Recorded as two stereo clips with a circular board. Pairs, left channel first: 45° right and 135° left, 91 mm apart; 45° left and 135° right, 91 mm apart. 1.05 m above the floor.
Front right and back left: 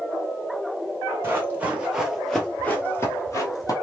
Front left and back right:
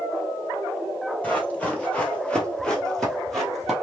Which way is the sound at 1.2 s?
100° left.